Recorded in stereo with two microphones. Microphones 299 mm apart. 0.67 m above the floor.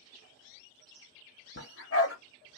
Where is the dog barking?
50° left (ahead or behind), 0.9 m.